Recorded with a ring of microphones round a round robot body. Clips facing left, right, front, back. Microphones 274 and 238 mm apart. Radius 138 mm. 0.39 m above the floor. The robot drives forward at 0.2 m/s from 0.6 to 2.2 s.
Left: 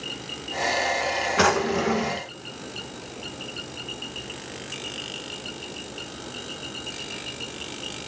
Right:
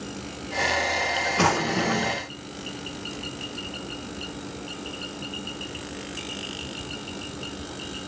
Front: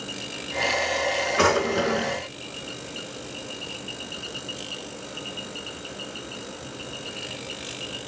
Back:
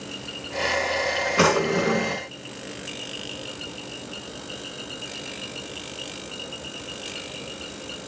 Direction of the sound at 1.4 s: 145° left.